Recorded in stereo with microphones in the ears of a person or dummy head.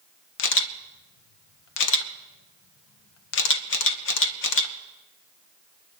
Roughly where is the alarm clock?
I don't hear an alarm clock.